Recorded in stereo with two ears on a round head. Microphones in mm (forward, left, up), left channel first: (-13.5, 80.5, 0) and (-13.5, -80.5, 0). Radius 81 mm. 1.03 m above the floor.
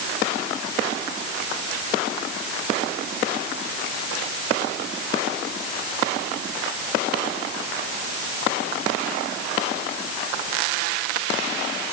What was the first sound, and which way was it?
Only background noise.